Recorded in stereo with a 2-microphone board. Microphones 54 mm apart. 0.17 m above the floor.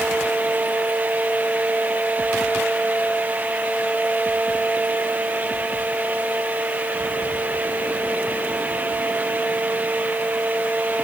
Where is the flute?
I don't hear a flute.